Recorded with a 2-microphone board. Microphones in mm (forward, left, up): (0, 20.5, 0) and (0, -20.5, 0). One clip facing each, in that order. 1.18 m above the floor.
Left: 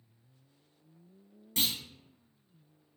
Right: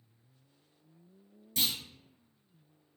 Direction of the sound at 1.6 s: 40° left (ahead or behind).